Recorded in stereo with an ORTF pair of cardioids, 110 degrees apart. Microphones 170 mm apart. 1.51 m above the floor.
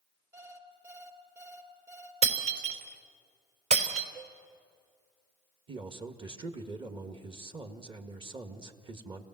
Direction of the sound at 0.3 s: 20° right.